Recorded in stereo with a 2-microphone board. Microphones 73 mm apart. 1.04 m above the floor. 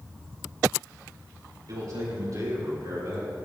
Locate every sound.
1.7 s a man speaking: 55° right (ahead or behind), 3.5 m; by 3.3 s 50° right (ahead or behind), 4 m